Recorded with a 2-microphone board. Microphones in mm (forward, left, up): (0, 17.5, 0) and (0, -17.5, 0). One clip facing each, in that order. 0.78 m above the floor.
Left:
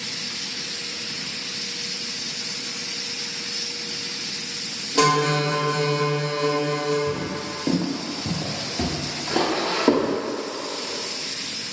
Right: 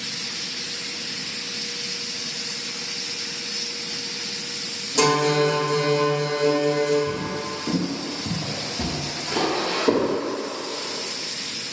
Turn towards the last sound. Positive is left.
turn(degrees=30)  # may be behind; listen again after turning